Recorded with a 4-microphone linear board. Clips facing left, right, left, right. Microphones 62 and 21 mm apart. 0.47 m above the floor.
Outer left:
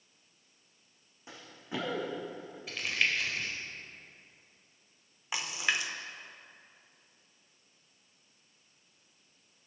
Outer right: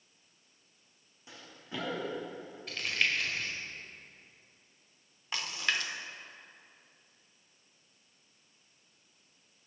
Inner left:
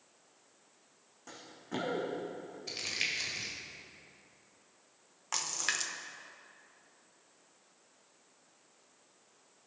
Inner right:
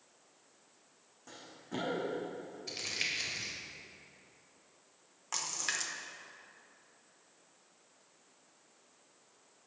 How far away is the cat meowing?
I don't hear a cat meowing.